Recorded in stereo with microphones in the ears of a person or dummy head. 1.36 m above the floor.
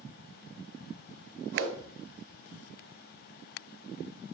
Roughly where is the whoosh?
Right.